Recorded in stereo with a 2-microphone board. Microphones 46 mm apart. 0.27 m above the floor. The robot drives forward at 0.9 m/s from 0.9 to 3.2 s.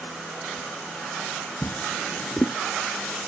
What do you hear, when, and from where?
1.6 s a drawer: 35° left (ahead or behind); by 2.6 s 30° left (ahead or behind)